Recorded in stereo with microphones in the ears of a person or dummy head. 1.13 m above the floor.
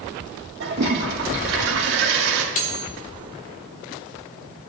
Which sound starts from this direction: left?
Cutlery clinking, at 2.5 s.